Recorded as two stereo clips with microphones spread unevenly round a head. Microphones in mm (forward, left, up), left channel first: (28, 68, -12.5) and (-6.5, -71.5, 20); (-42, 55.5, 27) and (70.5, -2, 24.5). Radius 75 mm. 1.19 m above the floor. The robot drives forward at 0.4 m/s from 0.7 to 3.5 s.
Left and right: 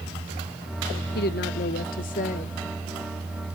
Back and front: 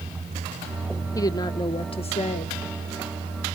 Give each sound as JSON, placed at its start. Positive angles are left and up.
{"t": 1.1, "sound": "a woman speaking", "azimuth_deg": 90, "distance_m": 1.0}